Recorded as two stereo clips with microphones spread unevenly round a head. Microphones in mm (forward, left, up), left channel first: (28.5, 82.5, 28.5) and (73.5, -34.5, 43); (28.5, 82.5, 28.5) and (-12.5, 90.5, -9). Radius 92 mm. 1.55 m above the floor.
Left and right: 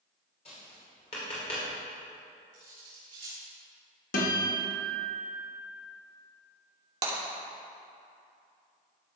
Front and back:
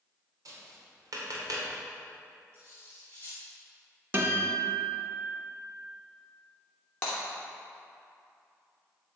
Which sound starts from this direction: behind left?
A guitar, at 4.1 s.